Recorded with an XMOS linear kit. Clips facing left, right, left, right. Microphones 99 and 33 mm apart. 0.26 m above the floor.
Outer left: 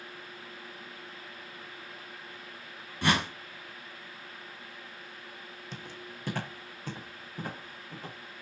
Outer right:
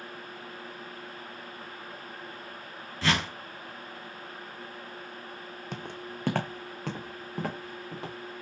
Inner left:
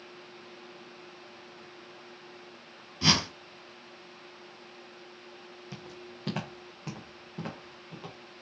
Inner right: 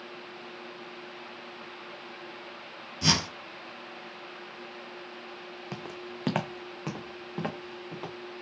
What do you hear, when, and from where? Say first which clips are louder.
3.0 s a whoosh: outer left 1 dB, inner left 1 dB; 15° left (ahead or behind), 1.1 m
5.7 s footsteps: outer right 6 dB, inner right 6 dB; 60° right (ahead or behind), 0.8 m; by 8.2 s 80° right, 2 m